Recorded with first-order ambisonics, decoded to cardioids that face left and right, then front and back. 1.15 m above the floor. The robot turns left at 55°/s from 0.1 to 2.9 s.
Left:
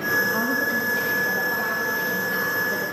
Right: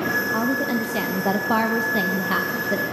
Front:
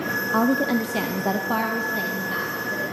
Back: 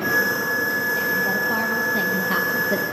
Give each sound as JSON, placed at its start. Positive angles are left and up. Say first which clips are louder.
{"t": 0.3, "sound": "a woman speaking", "louder": "even, even", "azimuth_deg": -10, "distance_m": 0.7}